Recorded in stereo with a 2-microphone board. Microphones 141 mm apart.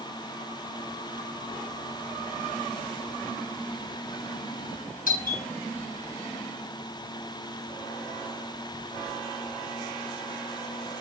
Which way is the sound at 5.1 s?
75° left (ahead or behind).